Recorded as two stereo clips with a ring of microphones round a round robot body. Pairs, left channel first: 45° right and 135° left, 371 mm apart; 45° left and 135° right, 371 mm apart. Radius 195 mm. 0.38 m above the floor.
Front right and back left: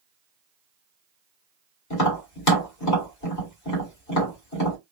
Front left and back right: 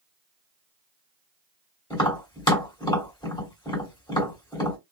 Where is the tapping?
30° right, 2 m.